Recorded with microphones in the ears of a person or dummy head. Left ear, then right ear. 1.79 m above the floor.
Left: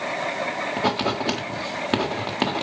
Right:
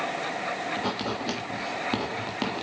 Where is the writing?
25° left (ahead or behind), 1.4 m.